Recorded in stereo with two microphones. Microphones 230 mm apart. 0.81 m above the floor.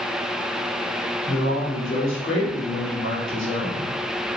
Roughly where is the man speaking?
Left.